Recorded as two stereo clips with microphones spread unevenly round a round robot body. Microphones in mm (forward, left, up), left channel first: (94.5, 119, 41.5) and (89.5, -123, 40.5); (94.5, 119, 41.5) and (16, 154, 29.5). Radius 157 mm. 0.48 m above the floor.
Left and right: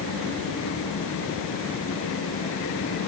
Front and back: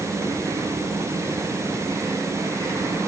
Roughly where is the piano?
I don't hear a piano.